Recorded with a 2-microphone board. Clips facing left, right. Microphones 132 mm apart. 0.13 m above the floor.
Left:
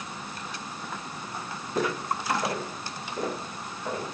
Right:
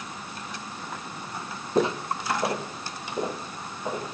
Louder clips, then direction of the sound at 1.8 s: Right 4 dB; 25° right (ahead or behind).